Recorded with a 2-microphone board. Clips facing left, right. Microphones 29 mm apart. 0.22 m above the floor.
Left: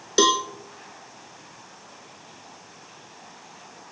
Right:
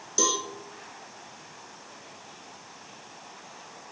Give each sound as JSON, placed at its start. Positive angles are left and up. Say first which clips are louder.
{"t": 0.2, "sound": "a cowbell", "louder": "left 8 dB", "side_deg": 65, "distance_m": 0.6}